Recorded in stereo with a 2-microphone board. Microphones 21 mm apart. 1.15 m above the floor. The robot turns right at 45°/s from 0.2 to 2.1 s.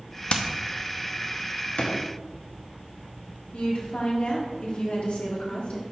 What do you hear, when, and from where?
0.3 s hammering: 65° left (ahead or behind), 0.7 m; by 0.4 s 60° left (ahead or behind), 0.7 m
1.8 s a drawer: 75° left (ahead or behind), 1.0 m
3.5 s a woman speaking: 75° left (ahead or behind), 1.6 m